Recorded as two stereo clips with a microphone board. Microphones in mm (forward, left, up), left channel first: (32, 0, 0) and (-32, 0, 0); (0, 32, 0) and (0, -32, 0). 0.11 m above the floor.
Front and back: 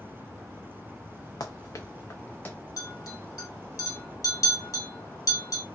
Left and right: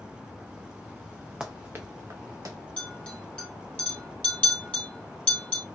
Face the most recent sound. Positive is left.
turn(degrees=20)